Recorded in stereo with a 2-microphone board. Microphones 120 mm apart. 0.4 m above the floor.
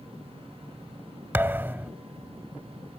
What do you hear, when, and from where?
1.3 s a thud: 20° right (ahead or behind)